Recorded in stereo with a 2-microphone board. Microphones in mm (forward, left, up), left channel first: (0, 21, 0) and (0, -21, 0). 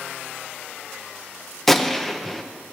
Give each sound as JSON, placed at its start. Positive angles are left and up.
{"t": 1.7, "sound": "a gunshot", "side_deg": 5, "distance_m": 0.9}